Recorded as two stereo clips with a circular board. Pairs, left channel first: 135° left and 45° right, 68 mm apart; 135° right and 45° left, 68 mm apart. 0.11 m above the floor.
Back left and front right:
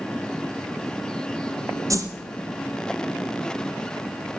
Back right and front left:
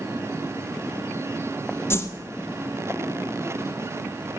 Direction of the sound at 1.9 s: 85° right.